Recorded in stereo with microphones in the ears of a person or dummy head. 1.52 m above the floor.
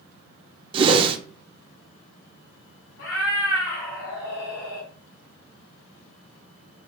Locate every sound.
0.7 s a whoosh: 30° right (ahead or behind), 0.5 m
3.0 s a cat meowing: 60° left (ahead or behind), 2.0 m